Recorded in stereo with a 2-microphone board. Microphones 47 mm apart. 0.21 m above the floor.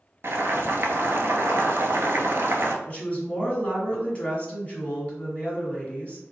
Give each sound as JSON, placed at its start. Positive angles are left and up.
{"t": 0.2, "sound": "boiling", "side_deg": -60, "distance_m": 0.7}
{"t": 2.9, "sound": "a woman speaking", "side_deg": 30, "distance_m": 1.5}